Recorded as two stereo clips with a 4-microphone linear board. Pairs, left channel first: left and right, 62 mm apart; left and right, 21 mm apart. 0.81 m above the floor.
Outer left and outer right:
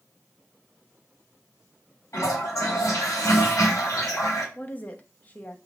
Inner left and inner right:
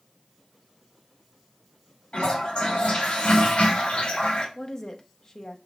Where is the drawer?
I don't hear a drawer.